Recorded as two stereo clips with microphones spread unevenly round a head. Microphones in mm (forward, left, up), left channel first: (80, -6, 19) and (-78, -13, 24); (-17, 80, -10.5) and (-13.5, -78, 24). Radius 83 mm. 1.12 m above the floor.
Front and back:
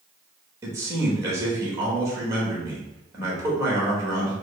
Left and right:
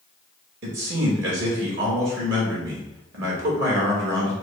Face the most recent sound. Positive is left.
turn(degrees=-105)